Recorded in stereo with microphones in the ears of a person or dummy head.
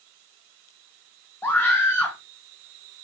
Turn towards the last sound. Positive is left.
turn(degrees=15)  # may be behind; listen again after turning